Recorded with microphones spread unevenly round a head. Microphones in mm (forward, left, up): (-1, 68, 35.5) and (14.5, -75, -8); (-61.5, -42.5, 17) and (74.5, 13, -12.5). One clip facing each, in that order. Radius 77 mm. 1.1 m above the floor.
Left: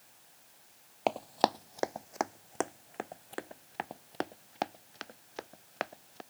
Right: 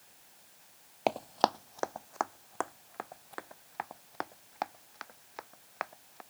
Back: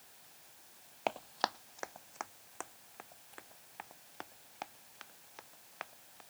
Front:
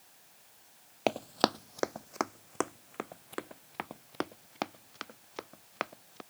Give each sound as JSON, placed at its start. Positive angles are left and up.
{"t": 1.1, "sound": "running footsteps", "azimuth_deg": 25}